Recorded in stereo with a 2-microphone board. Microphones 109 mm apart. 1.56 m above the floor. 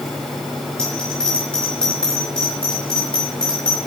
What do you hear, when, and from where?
0.8 s a bell: 10° left (ahead or behind), 4 m